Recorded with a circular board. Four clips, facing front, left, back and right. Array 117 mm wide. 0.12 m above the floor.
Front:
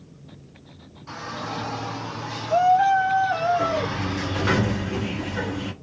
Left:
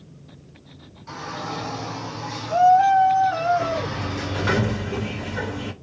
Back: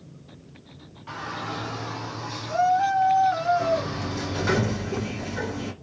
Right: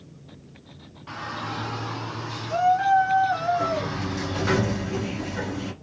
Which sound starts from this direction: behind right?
A shout, at 1.1 s.